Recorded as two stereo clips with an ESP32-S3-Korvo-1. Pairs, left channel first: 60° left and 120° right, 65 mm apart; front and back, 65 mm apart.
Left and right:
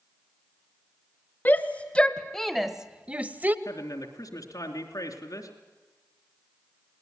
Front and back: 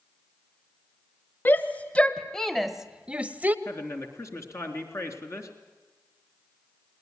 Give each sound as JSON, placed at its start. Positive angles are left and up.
{"t": 1.4, "sound": "a shout", "azimuth_deg": 30, "distance_m": 1.0}
{"t": 3.6, "sound": "a man speaking", "azimuth_deg": 40, "distance_m": 3.5}